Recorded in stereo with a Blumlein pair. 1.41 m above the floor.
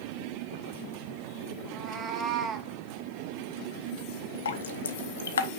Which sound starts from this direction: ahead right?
A cat meowing, at 1.6 s.